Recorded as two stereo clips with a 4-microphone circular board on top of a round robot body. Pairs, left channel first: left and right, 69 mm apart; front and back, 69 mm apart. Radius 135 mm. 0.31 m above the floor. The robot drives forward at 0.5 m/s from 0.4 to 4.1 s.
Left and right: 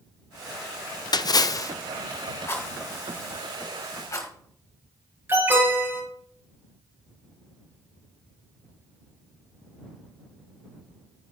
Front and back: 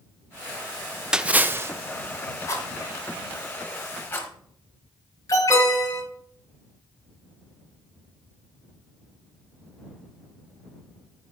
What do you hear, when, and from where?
1.1 s a splash: 100° left, 0.5 m; by 1.7 s 130° left, 0.6 m
2.5 s a rattle: 35° left, 2.5 m; by 4.3 s 50° left, 2 m
5.3 s an alarm: 35° right, 6 m